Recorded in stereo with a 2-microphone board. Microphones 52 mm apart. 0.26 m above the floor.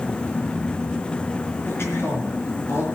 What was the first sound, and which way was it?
A woman speaking, 55° left (ahead or behind).